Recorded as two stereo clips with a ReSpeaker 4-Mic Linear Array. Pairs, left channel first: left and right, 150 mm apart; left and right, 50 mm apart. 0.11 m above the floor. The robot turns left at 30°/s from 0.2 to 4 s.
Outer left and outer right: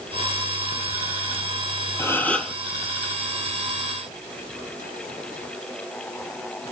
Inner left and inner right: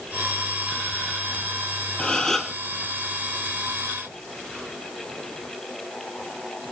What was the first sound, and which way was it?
A gasp, 20° left (ahead or behind).